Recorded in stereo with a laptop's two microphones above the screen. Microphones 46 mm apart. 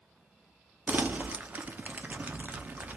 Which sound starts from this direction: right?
Crumpling, at 0.9 s.